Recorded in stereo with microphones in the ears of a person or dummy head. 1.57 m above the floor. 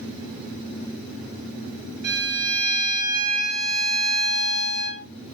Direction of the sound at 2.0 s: 50° right (ahead or behind).